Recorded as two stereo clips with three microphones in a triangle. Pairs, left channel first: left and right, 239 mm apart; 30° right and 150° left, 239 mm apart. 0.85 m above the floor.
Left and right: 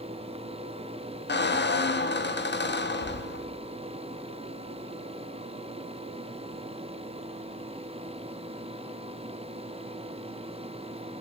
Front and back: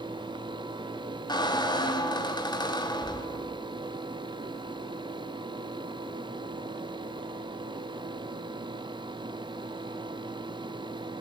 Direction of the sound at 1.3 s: 40° left.